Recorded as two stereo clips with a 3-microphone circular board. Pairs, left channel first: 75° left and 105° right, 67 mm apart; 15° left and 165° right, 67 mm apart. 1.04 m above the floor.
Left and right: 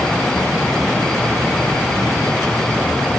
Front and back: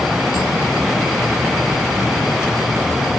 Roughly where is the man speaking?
I don't hear a man speaking.